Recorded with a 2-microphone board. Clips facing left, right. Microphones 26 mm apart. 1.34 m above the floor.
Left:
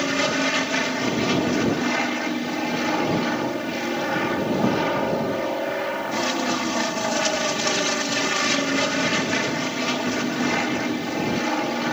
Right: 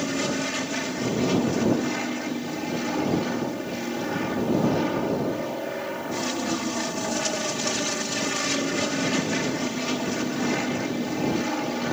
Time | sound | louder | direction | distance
0.0 | an aircraft | left 5 dB | 30° left (ahead or behind) | ?